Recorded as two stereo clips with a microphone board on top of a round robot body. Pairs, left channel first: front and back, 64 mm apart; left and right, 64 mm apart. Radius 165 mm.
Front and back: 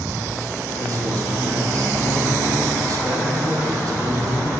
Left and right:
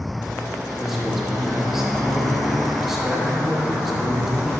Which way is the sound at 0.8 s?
175° right.